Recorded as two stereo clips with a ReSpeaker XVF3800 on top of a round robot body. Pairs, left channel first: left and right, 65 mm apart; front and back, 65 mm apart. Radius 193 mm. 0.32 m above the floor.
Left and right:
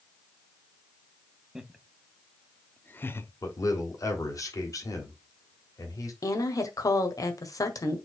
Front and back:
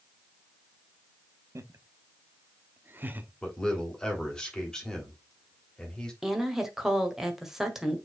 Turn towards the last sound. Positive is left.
turn(degrees=95)